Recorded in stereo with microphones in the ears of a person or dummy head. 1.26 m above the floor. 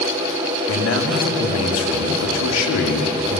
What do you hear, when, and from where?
0.7 s a man speaking: 80° left, 2.5 m